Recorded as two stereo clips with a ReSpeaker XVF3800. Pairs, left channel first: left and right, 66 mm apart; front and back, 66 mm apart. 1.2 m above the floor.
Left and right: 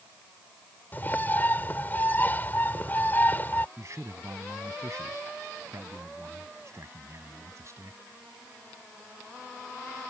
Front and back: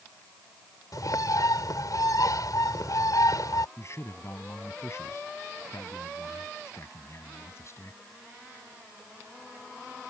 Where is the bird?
25° left.